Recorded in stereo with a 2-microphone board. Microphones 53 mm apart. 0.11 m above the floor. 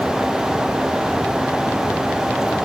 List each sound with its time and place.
Only background noise.